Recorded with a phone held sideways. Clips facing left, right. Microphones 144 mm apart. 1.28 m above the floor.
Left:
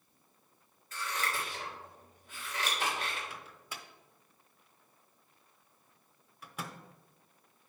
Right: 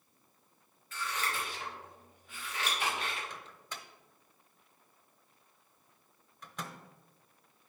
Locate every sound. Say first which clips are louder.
0.9 s scissors: even; 40° left (ahead or behind), 3.5 m
3.3 s a microwave: even; 5° left (ahead or behind), 0.8 m